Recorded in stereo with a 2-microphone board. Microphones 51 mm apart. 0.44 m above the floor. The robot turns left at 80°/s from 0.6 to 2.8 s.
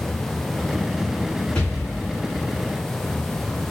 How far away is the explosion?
About 2 m.